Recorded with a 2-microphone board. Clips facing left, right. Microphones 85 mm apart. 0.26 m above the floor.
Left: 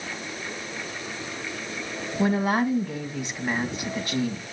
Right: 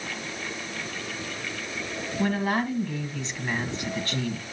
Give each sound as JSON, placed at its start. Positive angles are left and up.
{"t": 2.2, "sound": "a woman speaking", "side_deg": 15, "distance_m": 1.9}